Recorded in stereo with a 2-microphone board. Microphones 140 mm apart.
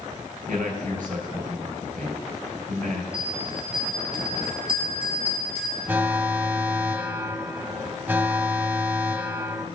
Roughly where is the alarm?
Centre.